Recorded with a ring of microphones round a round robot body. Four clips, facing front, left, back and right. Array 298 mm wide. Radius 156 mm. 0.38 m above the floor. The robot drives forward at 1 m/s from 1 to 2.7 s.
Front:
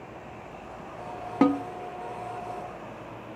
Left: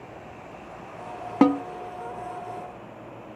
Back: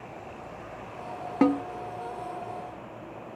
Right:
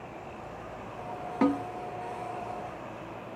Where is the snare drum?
90° left, 0.7 m; by 1.6 s 115° left, 0.7 m.